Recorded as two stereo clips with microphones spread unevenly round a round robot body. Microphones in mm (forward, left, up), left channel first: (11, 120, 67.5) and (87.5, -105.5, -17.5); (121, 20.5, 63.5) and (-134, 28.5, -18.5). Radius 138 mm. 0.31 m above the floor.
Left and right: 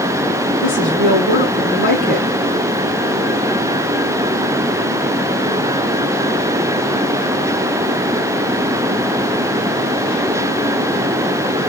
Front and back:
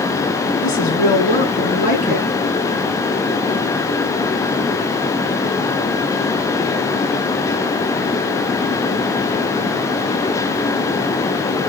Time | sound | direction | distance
0.6 | a woman speaking | 65° left | 4.5 m